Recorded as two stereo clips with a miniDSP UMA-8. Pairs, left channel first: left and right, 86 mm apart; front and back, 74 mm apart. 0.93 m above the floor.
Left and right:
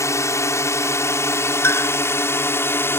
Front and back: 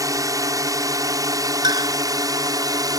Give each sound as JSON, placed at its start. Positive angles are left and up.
{"t": 0.0, "sound": "a drone", "azimuth_deg": 145}
{"t": 1.6, "sound": "a clink", "azimuth_deg": 155}